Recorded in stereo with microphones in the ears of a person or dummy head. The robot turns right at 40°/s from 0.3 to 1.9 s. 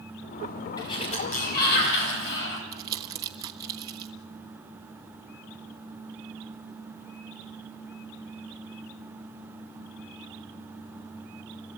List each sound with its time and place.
0.8 s a sliding door: 25° left, 5 m; by 2.6 s 70° left, 5 m
2.7 s crumpling: 20° right (ahead or behind), 1.2 m